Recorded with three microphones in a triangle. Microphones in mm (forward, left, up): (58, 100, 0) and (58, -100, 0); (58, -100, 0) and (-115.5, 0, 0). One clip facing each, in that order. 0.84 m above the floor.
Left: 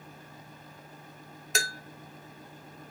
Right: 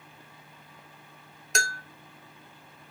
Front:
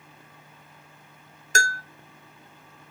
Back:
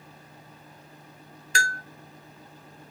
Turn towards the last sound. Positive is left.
turn(degrees=0)